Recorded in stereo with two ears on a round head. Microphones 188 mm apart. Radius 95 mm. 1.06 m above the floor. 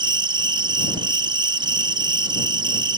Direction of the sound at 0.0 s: 20° right (ahead or behind).